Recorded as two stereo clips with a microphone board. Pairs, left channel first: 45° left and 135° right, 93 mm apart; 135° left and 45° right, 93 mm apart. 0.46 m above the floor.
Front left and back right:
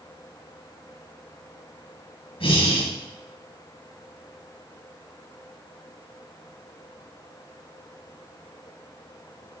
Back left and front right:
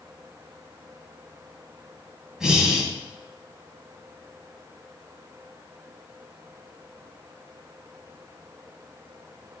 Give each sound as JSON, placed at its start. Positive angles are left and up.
{"t": 2.4, "sound": "breathing", "azimuth_deg": 40, "distance_m": 2.5}